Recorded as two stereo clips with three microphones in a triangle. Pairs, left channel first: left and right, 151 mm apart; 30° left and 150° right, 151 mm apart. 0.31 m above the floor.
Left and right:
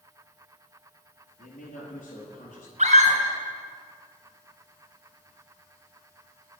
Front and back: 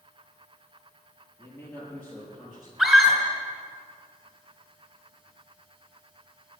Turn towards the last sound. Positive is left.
turn(degrees=-60)